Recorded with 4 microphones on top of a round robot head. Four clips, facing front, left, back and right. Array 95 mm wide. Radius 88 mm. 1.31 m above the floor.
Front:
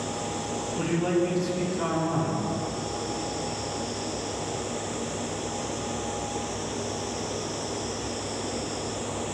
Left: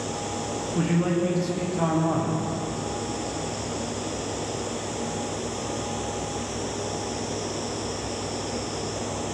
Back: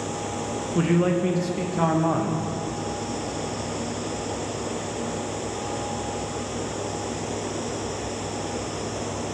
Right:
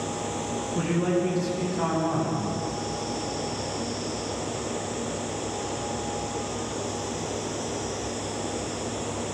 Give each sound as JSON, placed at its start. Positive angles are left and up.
{"t": 0.8, "sound": "a man speaking", "azimuth_deg": 180, "distance_m": 1.9}